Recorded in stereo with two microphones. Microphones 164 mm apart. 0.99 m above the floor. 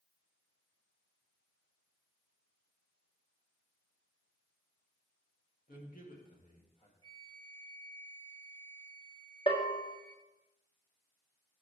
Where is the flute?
30° right (ahead or behind), 0.7 m.